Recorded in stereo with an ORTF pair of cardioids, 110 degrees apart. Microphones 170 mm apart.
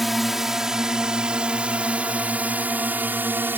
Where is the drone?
Straight ahead; by 3.6 s 10° right.